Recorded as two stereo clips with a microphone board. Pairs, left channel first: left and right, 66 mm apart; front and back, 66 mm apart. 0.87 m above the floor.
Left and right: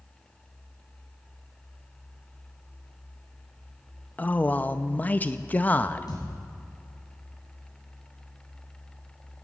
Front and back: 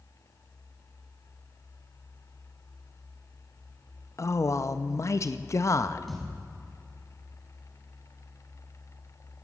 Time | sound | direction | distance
4.2 | a man speaking | 30° left | 0.5 m
6.1 | a thud | 90° left | 3 m